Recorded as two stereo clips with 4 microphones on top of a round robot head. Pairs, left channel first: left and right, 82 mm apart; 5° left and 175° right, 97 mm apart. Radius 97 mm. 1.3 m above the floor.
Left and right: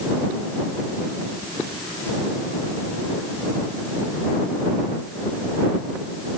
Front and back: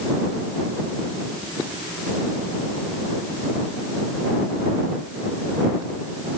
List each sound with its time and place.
Only background noise.